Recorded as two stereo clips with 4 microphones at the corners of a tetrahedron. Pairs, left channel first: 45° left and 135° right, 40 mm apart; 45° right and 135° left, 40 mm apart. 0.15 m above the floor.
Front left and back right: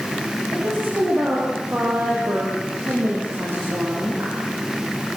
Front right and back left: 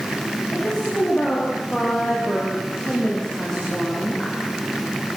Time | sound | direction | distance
0.5 | a woman speaking | 110° right | 9 m